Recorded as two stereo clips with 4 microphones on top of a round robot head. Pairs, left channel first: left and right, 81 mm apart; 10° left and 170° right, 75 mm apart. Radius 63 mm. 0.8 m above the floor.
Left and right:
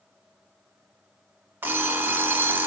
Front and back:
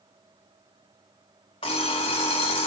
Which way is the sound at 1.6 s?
25° right.